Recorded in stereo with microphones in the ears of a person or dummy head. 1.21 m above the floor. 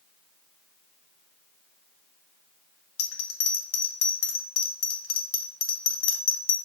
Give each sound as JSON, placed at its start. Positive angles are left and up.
{"t": 3.0, "sound": "a bell", "side_deg": 70, "distance_m": 1.6}